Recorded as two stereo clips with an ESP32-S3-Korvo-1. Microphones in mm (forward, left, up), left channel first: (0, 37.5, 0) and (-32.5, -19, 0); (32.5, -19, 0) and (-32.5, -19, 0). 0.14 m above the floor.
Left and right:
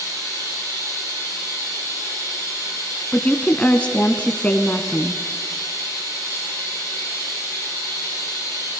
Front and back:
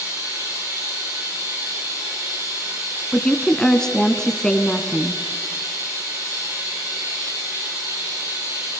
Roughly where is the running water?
Behind right.